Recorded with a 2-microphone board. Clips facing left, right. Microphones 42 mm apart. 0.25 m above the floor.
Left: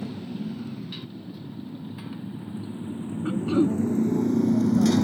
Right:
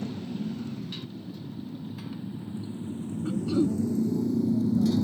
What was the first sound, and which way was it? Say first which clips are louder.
A motorcycle: even; 5° left (ahead or behind).